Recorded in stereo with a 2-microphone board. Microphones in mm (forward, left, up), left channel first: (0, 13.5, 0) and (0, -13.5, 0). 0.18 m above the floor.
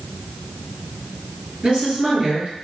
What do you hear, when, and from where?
1.6 s a woman speaking: 35° right (ahead or behind), 1.8 m